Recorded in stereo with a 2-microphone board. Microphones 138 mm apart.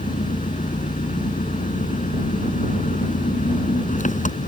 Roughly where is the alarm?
No alarm in this recording.